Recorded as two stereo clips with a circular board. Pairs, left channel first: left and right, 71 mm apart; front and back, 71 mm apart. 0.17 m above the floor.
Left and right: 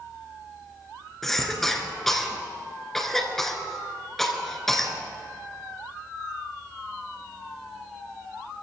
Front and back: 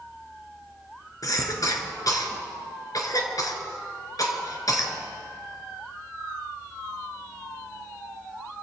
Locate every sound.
1.2 s a cough: 5° left, 2.5 m